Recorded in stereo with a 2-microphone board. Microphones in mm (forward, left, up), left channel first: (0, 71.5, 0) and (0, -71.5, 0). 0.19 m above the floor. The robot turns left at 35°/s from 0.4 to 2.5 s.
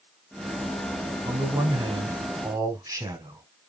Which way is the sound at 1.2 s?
25° right (ahead or behind).